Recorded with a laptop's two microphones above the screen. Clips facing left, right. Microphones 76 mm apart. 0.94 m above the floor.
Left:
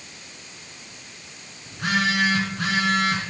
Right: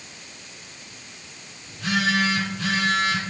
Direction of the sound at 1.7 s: 60° left (ahead or behind).